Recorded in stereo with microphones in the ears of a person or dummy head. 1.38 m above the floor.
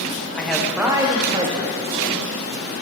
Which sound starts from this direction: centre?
A man speaking, at 0.4 s.